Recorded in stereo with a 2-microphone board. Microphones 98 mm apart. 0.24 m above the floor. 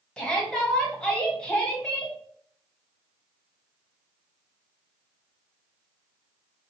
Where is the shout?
10° left (ahead or behind), 1.3 m.